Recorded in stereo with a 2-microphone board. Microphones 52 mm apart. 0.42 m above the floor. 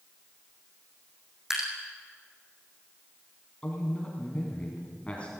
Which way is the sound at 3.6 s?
25° left (ahead or behind).